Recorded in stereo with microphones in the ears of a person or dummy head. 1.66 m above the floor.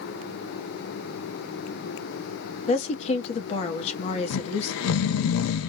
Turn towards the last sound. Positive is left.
turn(degrees=85)